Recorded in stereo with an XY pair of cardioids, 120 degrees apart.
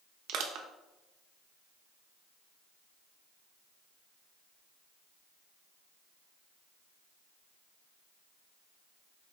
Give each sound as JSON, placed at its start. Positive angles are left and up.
{"t": 0.3, "sound": "crushing", "azimuth_deg": -70, "distance_m": 0.6}